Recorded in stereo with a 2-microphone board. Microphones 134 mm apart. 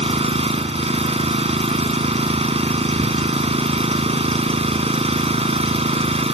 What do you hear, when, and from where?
0.0 s an engine running: 50° right (ahead or behind)